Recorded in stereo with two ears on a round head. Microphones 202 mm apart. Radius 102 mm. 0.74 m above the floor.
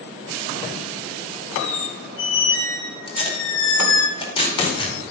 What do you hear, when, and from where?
1.5 s a squeak: 60° left (ahead or behind), 1.5 m
3.1 s tape being pulled: 25° left (ahead or behind), 2 m